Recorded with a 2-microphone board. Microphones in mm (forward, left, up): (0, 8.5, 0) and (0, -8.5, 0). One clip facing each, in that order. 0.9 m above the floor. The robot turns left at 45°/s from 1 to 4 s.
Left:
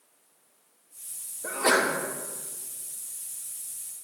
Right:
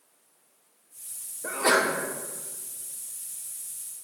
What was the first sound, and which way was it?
A sneeze, 10° right (ahead or behind).